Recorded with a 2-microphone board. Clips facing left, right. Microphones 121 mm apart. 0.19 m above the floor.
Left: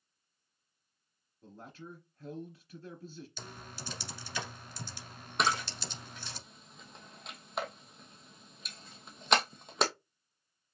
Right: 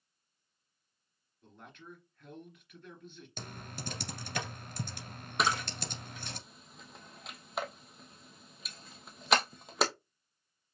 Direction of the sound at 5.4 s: Centre (ahead or behind).